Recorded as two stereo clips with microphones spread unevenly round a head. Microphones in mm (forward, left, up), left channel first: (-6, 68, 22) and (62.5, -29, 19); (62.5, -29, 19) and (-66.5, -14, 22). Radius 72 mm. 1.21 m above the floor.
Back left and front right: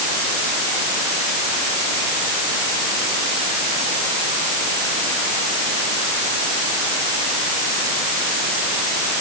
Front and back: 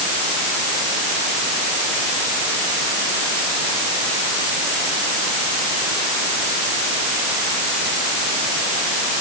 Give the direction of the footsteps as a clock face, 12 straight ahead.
I don't hear footsteps.